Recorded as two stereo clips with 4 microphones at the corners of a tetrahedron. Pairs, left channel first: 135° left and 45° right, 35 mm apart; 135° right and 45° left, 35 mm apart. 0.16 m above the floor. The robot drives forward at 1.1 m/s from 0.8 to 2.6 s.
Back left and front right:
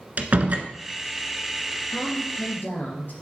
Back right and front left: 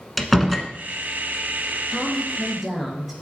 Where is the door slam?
45° right, 1.0 m.